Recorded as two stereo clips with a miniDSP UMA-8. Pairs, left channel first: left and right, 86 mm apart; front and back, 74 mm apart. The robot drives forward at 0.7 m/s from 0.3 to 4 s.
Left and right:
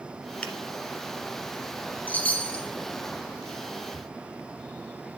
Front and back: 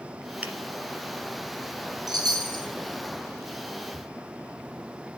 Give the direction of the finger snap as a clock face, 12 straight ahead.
7 o'clock.